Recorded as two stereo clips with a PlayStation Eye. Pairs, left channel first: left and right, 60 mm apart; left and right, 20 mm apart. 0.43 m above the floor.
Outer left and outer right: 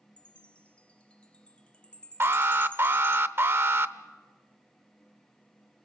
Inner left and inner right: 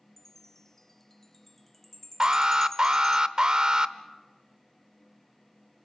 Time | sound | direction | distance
0.2 | a chime | 20° left (ahead or behind) | 0.9 m
2.2 | an alarm | 40° right (ahead or behind) | 0.7 m